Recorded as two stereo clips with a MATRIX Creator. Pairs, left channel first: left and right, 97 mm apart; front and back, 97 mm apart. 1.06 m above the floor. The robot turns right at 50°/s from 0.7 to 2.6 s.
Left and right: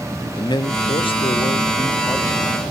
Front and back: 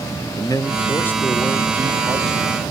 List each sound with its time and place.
0.3 s a man speaking: 50° left, 0.6 m; by 2.6 s 145° left, 0.6 m